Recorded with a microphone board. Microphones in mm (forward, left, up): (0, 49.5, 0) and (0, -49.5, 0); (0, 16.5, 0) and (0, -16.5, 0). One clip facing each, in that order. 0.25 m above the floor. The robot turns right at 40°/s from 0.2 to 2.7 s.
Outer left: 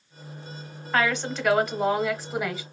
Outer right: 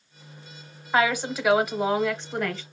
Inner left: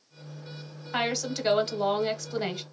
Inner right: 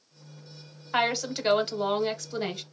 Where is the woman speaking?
10° right (ahead or behind), 1.0 m; by 2.6 s 10° left (ahead or behind), 1.0 m.